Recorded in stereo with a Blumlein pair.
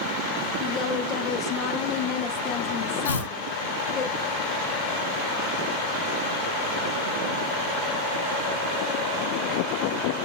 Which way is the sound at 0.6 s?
35° left.